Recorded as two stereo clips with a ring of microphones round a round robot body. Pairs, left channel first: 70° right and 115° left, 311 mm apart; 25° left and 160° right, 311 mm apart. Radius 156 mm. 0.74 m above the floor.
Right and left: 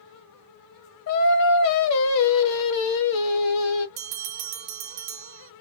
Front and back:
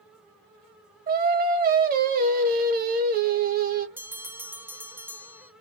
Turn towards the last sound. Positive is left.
turn(degrees=120)